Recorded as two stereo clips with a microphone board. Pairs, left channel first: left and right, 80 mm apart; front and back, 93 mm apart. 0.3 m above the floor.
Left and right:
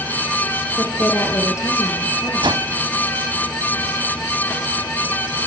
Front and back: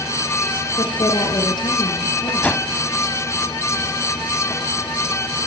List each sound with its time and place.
0.8 s a woman speaking: 35° left, 5.5 m
2.4 s a whoosh: 75° right, 0.7 m